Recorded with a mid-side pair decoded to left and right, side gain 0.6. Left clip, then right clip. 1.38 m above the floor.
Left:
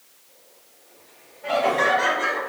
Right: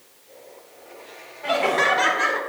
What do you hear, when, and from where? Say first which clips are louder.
1.4 s laughter: right 1 dB; 50° right, 3 m